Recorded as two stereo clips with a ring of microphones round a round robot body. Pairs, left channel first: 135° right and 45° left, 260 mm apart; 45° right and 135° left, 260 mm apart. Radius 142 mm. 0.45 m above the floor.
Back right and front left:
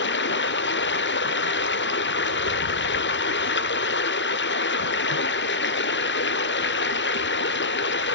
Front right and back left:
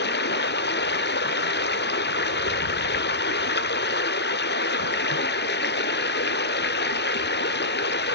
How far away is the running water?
About 1.0 m.